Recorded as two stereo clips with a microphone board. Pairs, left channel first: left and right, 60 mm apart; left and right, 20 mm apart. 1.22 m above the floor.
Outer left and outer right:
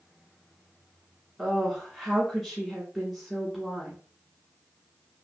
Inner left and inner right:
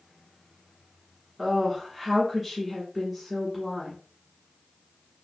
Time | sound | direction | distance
1.4 | a woman speaking | centre (ahead or behind) | 1.2 m